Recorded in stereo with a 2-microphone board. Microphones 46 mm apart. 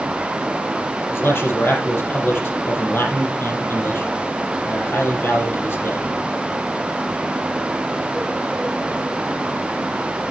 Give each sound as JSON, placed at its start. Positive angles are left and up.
{"t": 1.1, "sound": "a man speaking", "side_deg": 55, "distance_m": 5.5}